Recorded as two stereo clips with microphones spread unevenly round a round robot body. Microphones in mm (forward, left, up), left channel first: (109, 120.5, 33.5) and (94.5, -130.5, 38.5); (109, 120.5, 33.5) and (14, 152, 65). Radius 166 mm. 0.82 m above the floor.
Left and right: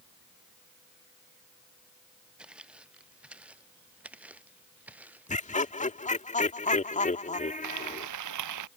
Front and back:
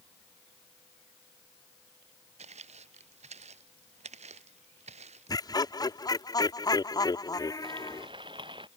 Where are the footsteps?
Straight behind.